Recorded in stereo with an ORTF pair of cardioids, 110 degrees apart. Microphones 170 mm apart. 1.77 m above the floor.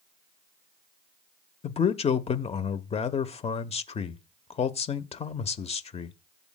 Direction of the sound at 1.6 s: 35° left.